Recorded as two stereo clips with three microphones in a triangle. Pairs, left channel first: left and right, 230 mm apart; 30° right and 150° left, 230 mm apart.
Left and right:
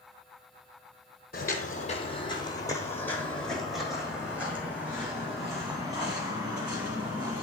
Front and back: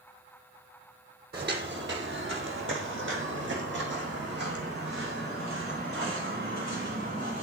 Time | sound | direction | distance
1.3 | footsteps | 125° left | 1.3 m